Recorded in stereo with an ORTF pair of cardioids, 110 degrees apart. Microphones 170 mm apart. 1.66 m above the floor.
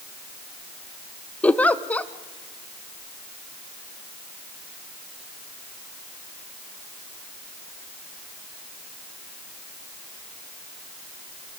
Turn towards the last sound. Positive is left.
turn(degrees=10)